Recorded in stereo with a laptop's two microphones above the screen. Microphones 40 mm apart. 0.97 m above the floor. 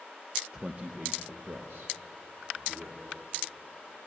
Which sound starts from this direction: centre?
A man speaking, at 0.5 s.